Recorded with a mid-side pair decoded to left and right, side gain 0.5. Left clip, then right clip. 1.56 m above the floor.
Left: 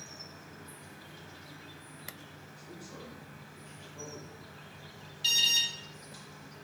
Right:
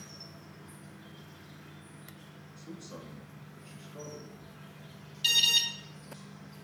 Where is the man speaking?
50° right, 0.8 m.